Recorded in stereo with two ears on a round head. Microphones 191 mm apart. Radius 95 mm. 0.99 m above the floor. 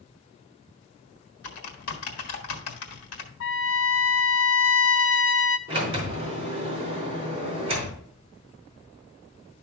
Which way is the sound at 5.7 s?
25° right (ahead or behind).